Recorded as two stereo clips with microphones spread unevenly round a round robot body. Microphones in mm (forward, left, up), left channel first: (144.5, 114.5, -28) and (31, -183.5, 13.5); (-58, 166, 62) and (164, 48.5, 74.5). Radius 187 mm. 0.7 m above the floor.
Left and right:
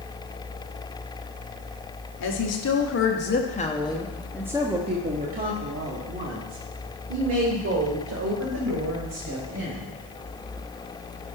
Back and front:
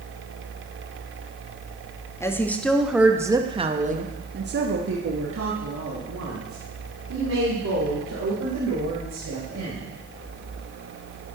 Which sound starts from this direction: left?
A woman speaking, at 2.2 s.